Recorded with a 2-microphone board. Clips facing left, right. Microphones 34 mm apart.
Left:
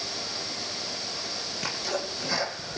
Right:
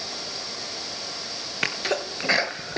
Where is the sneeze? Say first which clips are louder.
Right 6 dB; 60° right (ahead or behind), 4 m.